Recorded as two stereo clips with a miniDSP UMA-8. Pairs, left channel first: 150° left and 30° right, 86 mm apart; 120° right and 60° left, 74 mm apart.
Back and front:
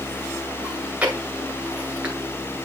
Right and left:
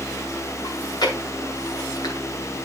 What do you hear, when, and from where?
0.6 s chewing: 105° right, 1.8 m